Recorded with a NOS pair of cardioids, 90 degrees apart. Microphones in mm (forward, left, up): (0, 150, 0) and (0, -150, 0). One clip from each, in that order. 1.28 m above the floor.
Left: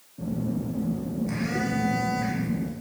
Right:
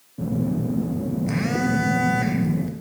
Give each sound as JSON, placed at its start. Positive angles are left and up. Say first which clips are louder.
{"t": 0.2, "sound": "a phone buzzing", "louder": "right 5 dB", "azimuth_deg": -35, "distance_m": 0.8}